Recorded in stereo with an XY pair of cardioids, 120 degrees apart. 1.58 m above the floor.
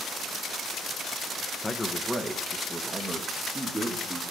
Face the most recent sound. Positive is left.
turn(degrees=-25)